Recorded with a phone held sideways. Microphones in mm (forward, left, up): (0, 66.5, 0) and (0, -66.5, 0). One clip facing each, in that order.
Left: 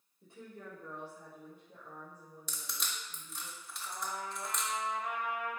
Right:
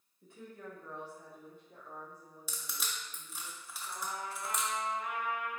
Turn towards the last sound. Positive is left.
turn(degrees=50)  # may be behind; listen again after turning